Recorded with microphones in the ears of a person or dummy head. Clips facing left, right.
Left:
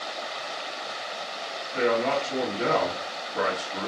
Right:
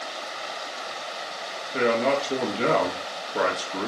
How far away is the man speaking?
About 1.2 m.